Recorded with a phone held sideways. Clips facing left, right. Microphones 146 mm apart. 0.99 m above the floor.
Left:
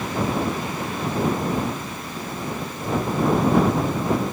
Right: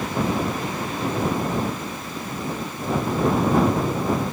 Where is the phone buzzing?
I don't hear a phone buzzing.